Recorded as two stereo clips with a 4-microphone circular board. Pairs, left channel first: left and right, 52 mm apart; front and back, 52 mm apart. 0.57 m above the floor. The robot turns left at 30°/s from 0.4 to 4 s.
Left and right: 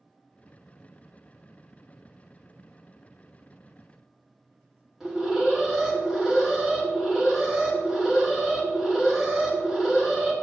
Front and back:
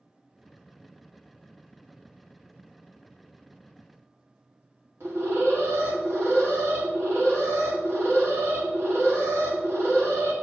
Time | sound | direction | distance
5.0 | an alarm | 170° right | 1.9 m